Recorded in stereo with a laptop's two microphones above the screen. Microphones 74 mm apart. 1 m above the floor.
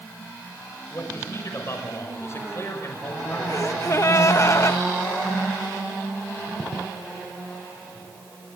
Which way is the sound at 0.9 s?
40° left (ahead or behind).